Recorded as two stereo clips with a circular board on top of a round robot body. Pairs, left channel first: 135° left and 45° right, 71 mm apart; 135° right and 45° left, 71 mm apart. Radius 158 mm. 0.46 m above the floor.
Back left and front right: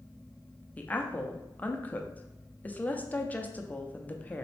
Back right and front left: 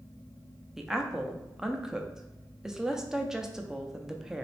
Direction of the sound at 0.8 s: 115° left.